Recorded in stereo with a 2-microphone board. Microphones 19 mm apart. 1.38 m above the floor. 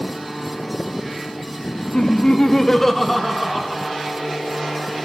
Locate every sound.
1.9 s laughter: 50° left (ahead or behind), 0.6 m; by 3.8 s 5° right (ahead or behind), 1.4 m